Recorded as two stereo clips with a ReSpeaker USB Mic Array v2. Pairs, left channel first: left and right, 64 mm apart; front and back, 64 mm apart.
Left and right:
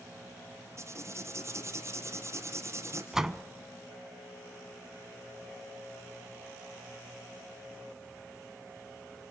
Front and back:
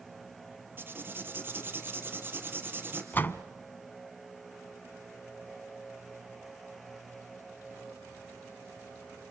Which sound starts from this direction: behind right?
Writing, at 0.8 s.